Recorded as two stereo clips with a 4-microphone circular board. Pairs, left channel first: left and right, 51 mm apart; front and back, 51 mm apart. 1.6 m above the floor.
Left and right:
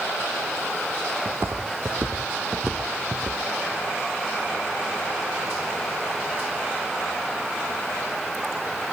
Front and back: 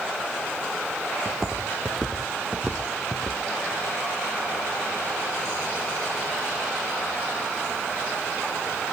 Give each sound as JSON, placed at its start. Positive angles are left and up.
{"t": 1.2, "sound": "footsteps", "azimuth_deg": -85, "distance_m": 2.5}